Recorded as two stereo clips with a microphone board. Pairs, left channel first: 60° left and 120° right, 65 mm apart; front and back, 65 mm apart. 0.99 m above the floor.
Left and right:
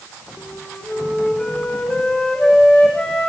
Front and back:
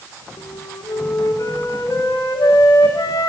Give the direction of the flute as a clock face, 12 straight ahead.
1 o'clock.